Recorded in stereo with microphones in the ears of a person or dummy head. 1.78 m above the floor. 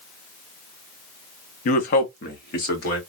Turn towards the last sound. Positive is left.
turn(degrees=65)  # may be behind; listen again after turning